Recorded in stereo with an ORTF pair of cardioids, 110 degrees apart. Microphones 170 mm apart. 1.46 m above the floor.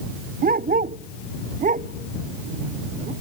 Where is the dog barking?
55° right; by 3.1 s 45° right.